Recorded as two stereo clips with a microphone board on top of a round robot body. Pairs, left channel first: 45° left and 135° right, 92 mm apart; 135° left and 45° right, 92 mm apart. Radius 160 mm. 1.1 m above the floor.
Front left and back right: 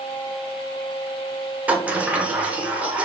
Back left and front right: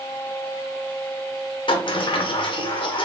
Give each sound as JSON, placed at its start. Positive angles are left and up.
{"t": 1.7, "sound": "a sliding door", "azimuth_deg": 150, "distance_m": 0.8}